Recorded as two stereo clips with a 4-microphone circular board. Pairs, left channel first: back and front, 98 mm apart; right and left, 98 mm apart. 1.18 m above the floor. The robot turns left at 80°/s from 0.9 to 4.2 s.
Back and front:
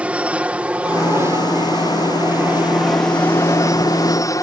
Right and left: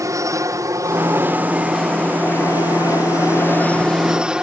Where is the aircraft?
70° left; by 4.4 s 165° left.